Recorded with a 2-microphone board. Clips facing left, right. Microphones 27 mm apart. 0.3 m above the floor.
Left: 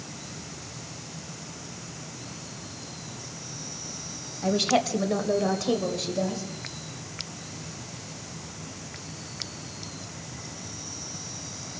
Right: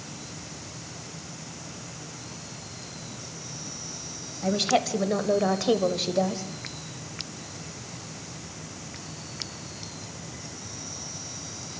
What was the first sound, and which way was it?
A woman speaking, 5° left (ahead or behind).